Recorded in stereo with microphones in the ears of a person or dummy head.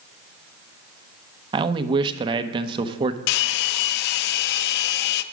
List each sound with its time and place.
1.5 s a man speaking: 30° right (ahead or behind), 0.7 m
3.3 s a hair dryer: 65° left (ahead or behind), 0.5 m